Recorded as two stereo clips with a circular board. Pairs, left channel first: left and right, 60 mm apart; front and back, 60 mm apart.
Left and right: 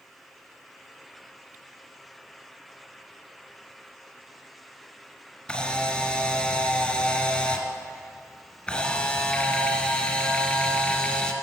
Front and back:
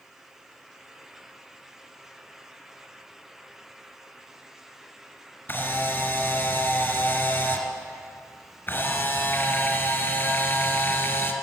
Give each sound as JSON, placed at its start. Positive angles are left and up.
{"t": 5.5, "sound": "a camera shutter", "azimuth_deg": 30, "distance_m": 1.7}